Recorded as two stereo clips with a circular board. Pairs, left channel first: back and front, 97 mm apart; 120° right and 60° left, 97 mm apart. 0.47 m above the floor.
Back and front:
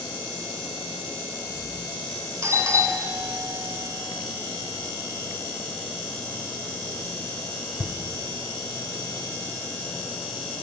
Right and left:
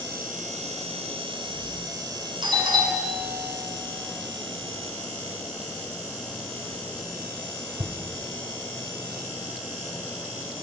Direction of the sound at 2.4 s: 50° left.